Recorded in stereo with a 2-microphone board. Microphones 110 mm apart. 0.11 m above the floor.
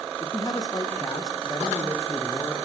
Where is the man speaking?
35° left (ahead or behind), 5 m; by 2.5 s 25° left (ahead or behind), 5.5 m.